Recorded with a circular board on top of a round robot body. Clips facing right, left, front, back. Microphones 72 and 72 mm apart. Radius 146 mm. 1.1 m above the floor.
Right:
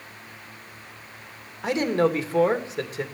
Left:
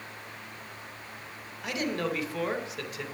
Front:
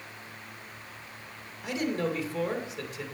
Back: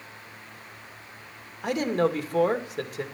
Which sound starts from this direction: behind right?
A man speaking, at 1.6 s.